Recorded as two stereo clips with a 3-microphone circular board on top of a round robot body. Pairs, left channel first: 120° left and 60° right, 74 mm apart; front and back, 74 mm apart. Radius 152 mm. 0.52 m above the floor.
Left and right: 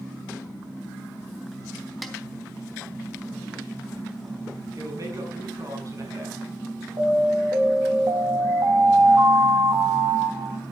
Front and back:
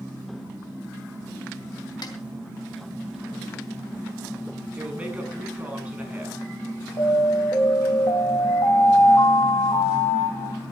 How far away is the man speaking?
About 7 m.